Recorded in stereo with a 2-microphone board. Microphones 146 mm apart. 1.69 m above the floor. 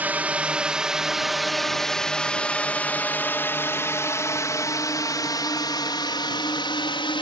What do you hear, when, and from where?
0.0 s a drone: 10° right (ahead or behind); by 7.2 s 35° left (ahead or behind)